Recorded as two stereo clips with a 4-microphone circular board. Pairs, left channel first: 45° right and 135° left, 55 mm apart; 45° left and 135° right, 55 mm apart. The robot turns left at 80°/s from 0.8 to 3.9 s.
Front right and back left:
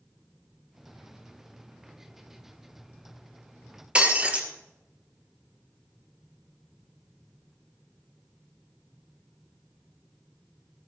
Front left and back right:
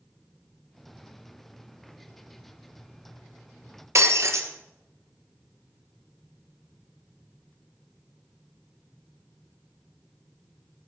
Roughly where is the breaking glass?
Behind right.